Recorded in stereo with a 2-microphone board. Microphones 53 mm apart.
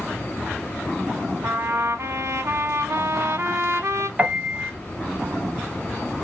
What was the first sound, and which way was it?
A trumpet, 60° right (ahead or behind).